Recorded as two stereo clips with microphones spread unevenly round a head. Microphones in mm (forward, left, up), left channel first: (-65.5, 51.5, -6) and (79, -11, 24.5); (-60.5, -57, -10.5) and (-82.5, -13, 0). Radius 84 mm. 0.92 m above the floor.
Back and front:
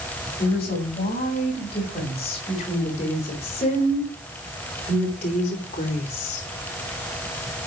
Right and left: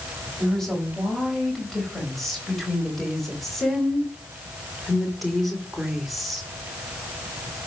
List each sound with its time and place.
0.4 s a woman speaking: 145° right, 5.5 m; by 6.4 s 155° right, 2 m